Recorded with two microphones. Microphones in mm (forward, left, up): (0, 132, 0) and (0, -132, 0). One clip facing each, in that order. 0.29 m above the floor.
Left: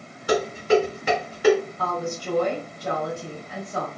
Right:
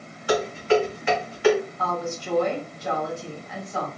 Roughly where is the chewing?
I don't hear chewing.